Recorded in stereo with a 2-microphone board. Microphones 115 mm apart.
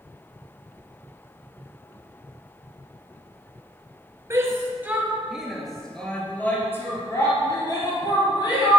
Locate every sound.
4.3 s a shout: 25° right (ahead or behind), 2.5 m; by 8.8 s 45° left (ahead or behind), 3.5 m